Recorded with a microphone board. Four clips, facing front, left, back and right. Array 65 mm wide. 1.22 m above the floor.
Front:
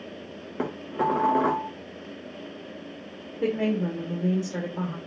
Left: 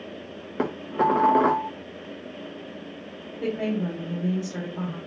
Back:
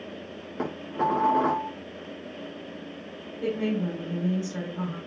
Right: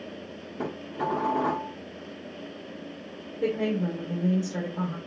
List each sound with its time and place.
0.6 s dishes clattering: 80° left, 0.9 m
3.4 s a woman speaking: 10° right, 2 m